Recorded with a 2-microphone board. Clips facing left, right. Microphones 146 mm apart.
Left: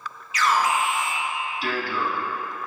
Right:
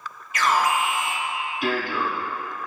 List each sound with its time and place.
0.3 s an alarm: 55° right (ahead or behind), 1.0 m